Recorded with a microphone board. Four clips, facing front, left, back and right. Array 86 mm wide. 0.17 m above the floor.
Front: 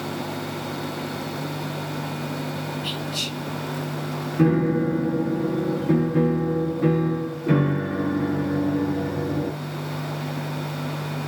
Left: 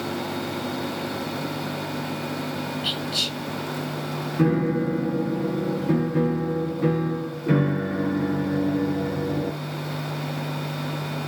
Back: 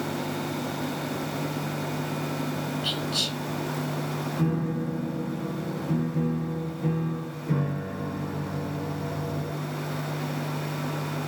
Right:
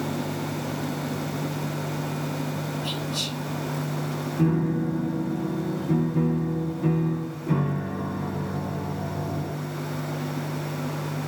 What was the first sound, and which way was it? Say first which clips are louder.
Whispering: left 1 dB, even; 120° left.